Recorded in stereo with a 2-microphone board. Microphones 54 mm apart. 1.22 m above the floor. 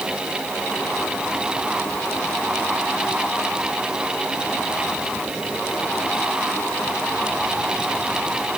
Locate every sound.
Only background noise.